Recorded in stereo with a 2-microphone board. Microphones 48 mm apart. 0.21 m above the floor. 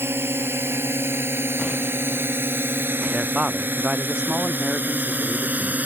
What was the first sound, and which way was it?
A drone, 65° right (ahead or behind).